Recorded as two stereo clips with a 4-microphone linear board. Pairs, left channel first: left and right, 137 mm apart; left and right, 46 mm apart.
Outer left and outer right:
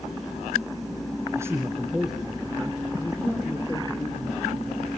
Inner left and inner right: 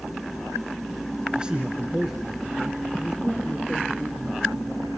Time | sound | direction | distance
1.4 | a man speaking | 20° right (ahead or behind) | 1.6 m